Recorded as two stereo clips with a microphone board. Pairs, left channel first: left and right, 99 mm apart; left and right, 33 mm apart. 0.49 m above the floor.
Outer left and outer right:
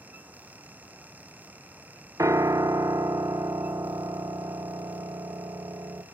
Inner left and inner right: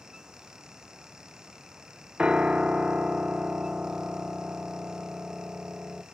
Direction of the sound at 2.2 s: 35° right (ahead or behind).